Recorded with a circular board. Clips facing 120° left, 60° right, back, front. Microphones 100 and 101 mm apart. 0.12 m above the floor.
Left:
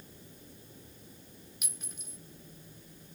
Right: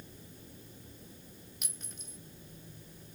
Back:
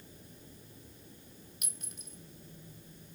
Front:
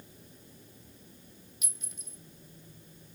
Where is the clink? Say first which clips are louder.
Even, back 1 dB; 155° right, 2.5 m.